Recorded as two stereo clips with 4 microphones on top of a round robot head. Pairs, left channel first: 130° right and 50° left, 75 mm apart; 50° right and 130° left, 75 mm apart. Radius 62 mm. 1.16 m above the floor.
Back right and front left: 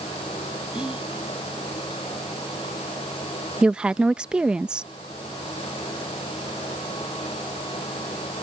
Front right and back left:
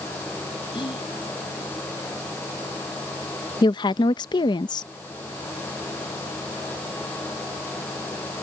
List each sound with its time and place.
0.7 s whispering: 30° right
3.6 s a woman speaking: 30° right